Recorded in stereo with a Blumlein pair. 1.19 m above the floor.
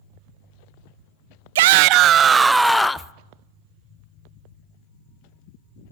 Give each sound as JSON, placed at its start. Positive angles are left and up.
{"t": 1.6, "sound": "a shout", "azimuth_deg": -55, "distance_m": 0.7}